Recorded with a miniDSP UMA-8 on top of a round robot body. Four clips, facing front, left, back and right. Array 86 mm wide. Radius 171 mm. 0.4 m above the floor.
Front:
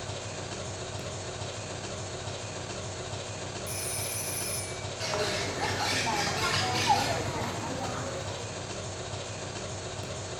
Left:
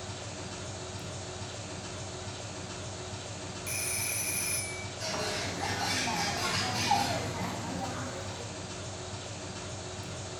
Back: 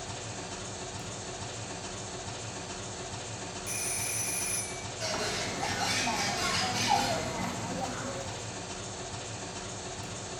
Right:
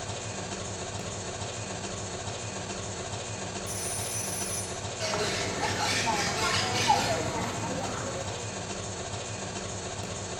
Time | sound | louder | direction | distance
0.0 | an engine running | right 5 dB, front 2 dB | 45° right | 1.7 m
3.7 | a phone ringing | right 3 dB, front 2 dB | 105° left | 1.3 m
5.0 | a bird | right 4 dB, front 3 dB | 40° right | 2 m